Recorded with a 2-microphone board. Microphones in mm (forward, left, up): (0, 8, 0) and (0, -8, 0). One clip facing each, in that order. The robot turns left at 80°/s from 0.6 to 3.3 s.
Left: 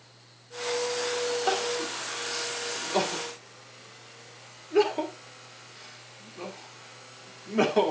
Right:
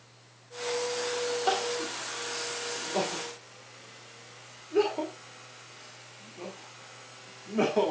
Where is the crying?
10° left (ahead or behind), 3 m; by 7.9 s 25° left (ahead or behind), 3 m.